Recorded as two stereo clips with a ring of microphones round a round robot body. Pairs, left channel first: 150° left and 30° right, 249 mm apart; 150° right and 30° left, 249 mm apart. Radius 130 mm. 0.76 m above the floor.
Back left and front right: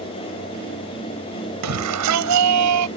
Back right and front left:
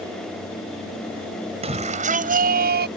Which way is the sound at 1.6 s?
35° right.